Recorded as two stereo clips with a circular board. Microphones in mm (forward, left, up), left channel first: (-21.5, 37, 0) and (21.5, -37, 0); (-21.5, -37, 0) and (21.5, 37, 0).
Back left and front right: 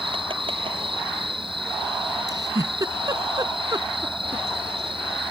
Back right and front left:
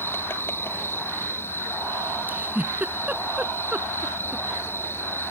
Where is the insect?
55° right.